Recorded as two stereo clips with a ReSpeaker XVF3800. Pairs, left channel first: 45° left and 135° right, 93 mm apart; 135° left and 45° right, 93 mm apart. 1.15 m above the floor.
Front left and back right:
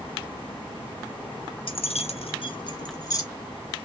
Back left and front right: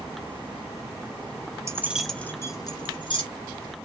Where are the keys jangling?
15° left, 0.6 m; by 3.2 s 100° left, 1.2 m.